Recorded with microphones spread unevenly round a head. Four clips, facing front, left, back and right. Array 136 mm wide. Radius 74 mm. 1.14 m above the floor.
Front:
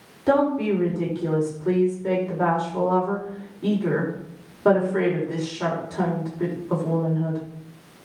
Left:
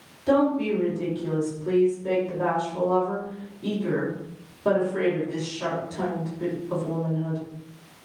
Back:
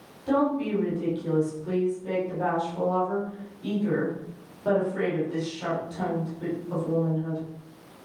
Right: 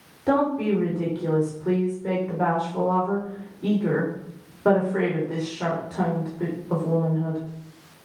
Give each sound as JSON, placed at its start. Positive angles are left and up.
{"t": 0.3, "sound": "a woman speaking", "azimuth_deg": -30, "distance_m": 5.0}